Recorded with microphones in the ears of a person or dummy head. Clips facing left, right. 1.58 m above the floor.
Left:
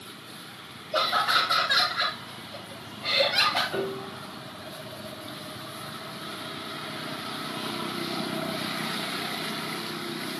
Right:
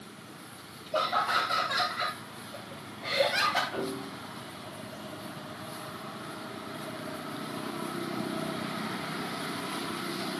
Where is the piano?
60° left (ahead or behind), 8.5 m.